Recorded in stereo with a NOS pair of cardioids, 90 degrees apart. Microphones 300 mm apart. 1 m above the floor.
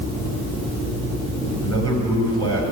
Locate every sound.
1.6 s a man speaking: 45° right, 5 m